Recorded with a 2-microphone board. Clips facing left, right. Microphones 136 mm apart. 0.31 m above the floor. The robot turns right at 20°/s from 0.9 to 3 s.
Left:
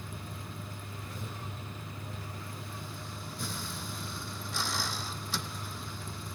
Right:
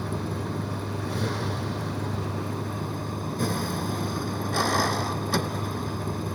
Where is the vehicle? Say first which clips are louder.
Right 14 dB; 105° right; by 6.4 s 60° right.